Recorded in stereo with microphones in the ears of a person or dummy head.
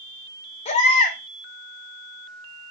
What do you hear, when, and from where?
0.7 s a baby crying: 35° left (ahead or behind), 5 m